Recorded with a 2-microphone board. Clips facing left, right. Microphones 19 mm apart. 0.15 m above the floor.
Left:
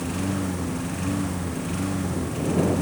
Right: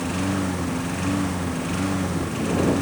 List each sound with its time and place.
0.0 s a lawn mower: 15° right (ahead or behind); by 2.8 s 20° right (ahead or behind)